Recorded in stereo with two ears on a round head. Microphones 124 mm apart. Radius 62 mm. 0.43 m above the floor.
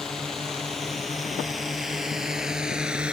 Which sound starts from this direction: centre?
A drone, at 0.0 s.